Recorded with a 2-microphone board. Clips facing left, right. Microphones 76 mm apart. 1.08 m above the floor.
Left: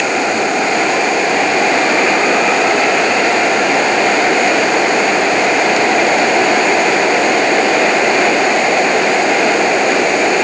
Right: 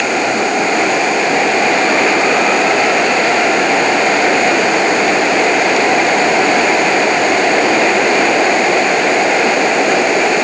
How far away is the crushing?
I don't hear crushing.